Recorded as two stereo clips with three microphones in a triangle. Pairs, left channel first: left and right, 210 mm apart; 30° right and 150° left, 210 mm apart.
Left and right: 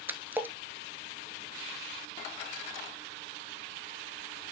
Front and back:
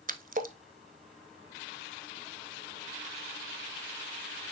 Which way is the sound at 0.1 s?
170° right.